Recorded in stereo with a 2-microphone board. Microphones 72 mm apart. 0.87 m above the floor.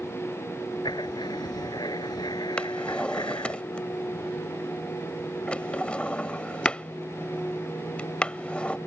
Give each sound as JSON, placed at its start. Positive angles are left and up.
{"t": 0.8, "sound": "writing", "side_deg": 75}
{"t": 2.6, "sound": "a drawer", "side_deg": 15}